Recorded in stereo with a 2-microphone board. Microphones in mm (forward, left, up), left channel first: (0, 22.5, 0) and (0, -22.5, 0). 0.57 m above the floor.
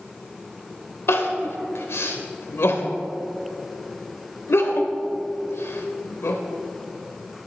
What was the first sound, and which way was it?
Crying, 65° left (ahead or behind).